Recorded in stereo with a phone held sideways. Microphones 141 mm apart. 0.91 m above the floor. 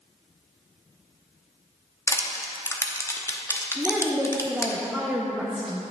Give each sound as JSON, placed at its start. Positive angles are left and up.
{"t": 2.1, "sound": "crushing", "side_deg": 20, "distance_m": 0.7}
{"t": 3.8, "sound": "a woman speaking", "side_deg": -5, "distance_m": 0.8}